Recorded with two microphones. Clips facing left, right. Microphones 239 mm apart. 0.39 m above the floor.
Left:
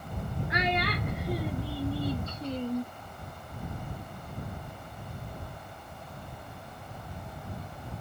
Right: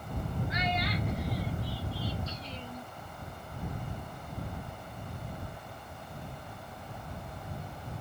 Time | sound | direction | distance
0.5 | a child speaking | 70° left (ahead or behind) | ?